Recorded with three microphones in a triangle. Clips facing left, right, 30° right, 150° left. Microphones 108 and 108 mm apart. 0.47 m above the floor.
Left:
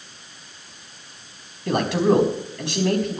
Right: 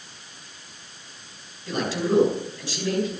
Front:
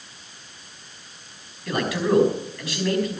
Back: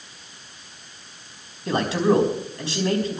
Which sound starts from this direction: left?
A man speaking, at 1.7 s.